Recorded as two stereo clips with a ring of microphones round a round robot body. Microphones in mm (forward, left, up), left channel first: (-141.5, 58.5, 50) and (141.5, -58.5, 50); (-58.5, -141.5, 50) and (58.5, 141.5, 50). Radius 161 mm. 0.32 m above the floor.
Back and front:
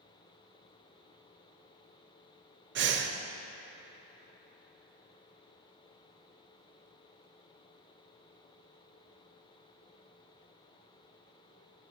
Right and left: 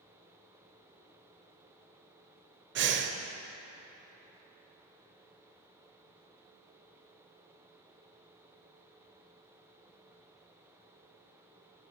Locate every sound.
2.8 s breathing: 20° left, 0.6 m